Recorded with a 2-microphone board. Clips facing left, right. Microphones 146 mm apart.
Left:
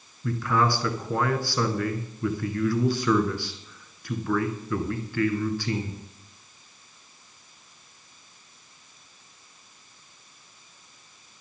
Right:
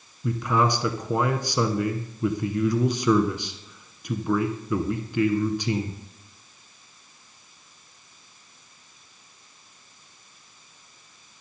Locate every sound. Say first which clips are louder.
0.2 s a man speaking: right 1 dB; 20° right (ahead or behind), 1.2 m